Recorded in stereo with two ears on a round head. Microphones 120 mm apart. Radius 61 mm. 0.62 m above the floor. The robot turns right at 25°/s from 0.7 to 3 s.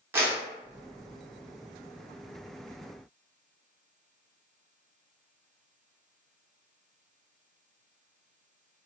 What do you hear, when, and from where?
0.1 s a clap: 15° right (ahead or behind), 0.6 m